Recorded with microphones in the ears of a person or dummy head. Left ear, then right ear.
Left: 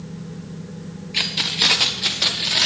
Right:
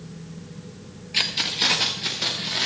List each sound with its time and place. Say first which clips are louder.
1.1 s keys jangling: left 2 dB; 5° right (ahead or behind), 1.0 m; by 2.7 s 25° left (ahead or behind), 2 m